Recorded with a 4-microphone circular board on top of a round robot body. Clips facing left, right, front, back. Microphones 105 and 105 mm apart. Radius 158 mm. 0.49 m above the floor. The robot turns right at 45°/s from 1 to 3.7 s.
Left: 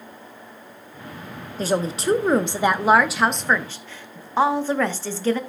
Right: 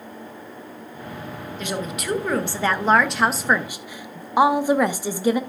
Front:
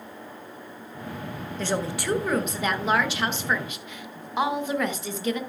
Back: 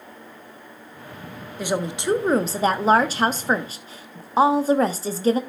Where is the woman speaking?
105° left, 1.0 m; by 5.4 s 160° right, 1.0 m.